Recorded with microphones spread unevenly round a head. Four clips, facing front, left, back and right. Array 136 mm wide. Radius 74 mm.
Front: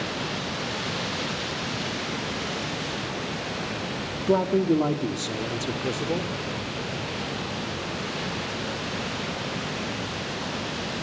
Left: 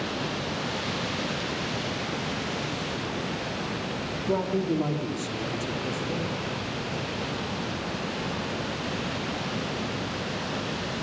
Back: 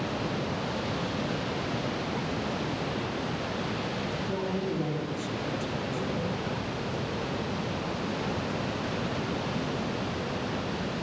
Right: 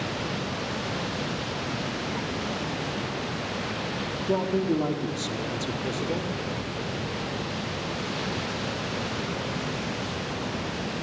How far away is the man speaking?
About 2.5 m.